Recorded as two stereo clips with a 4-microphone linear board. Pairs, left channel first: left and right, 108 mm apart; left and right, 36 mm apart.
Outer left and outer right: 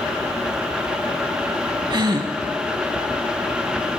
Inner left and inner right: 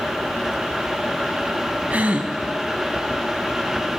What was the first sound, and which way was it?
A gasp, 40° right (ahead or behind).